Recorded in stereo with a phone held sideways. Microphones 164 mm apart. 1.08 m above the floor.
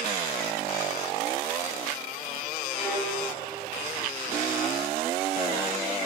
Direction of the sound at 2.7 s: 15° right (ahead or behind).